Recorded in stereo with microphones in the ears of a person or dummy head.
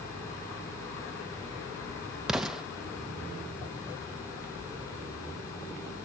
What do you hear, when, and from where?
2.3 s an explosion: 5° right (ahead or behind), 0.5 m